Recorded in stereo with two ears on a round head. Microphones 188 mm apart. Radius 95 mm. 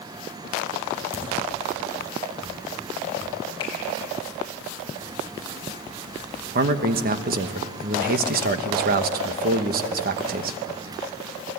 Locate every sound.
1.1 s a crack: 10° right (ahead or behind), 7.5 m
3.6 s a finger snap: 20° left (ahead or behind), 7.5 m
6.5 s a man speaking: 45° right (ahead or behind), 1.2 m